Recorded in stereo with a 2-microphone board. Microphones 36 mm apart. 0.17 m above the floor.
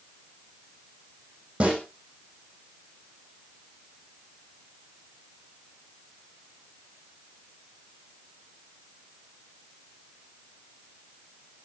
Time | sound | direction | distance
1.6 | a snare drum | 30° right (ahead or behind) | 8.5 m